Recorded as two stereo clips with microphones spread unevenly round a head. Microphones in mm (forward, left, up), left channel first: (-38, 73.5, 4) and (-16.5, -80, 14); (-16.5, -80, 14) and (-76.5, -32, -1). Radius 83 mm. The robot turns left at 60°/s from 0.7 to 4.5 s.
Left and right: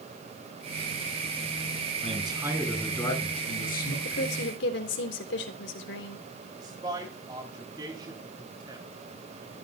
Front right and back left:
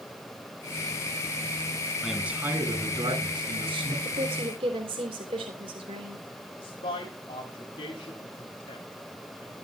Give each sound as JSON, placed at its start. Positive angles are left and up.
{"t": 2.0, "sound": "a man speaking", "azimuth_deg": -130, "distance_m": 9.5}
{"t": 4.0, "sound": "a woman speaking", "azimuth_deg": 125, "distance_m": 3.5}
{"t": 6.6, "sound": "a man speaking", "azimuth_deg": -15, "distance_m": 4.0}